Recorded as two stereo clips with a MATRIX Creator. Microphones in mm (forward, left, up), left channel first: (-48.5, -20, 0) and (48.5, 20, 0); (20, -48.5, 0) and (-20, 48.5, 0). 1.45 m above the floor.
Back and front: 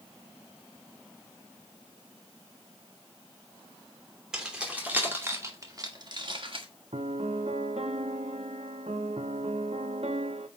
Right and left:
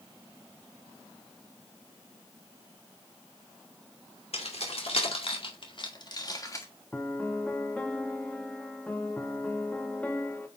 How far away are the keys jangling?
About 2.5 m.